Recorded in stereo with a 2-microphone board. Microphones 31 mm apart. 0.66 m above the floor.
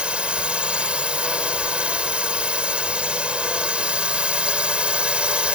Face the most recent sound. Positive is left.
turn(degrees=-40)  # may be behind; listen again after turning